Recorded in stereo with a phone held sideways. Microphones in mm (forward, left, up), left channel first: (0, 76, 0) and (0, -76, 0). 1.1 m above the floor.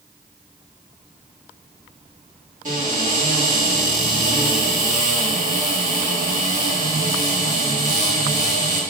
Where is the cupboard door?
50° right (ahead or behind), 2.5 m.